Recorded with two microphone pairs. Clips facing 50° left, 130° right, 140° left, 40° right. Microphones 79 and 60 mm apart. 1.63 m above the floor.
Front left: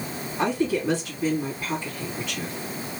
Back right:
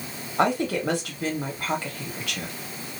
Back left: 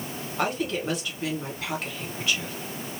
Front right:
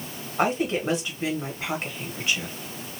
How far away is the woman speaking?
About 1.5 m.